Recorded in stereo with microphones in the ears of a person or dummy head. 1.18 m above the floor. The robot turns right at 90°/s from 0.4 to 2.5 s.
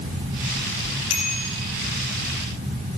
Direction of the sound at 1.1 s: 80° left.